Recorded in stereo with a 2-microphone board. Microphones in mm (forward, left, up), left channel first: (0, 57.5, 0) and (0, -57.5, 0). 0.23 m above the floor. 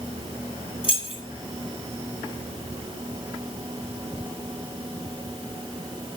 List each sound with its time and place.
0.8 s keys jangling: 55° left (ahead or behind), 1.4 m